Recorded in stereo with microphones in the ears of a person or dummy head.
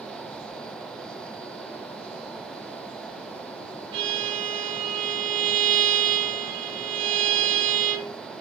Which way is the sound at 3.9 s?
35° right (ahead or behind).